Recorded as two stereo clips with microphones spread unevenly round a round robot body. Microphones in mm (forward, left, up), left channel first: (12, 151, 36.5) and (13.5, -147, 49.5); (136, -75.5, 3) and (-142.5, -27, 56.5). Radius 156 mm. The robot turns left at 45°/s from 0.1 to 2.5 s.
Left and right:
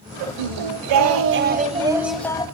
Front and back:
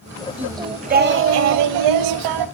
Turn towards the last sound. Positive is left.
turn(degrees=165)